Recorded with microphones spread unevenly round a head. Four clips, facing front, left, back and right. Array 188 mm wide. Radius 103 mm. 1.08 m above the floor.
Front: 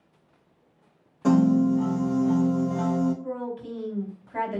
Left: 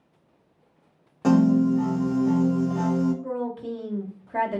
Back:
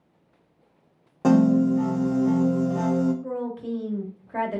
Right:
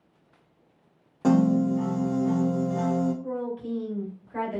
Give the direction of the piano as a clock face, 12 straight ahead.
6 o'clock.